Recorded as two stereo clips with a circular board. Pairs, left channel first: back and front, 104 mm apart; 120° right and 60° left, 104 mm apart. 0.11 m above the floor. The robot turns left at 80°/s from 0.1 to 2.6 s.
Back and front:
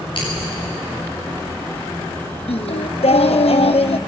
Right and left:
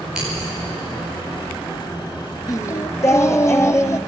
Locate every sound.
0.1 s scissors: 145° left, 9 m; by 0.5 s 120° left, 9 m
2.5 s singing: 170° right, 1.0 m; by 4.0 s straight behind, 1.0 m